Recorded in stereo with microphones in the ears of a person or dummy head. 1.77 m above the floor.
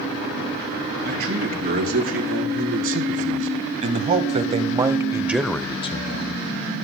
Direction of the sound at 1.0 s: 50° right (ahead or behind).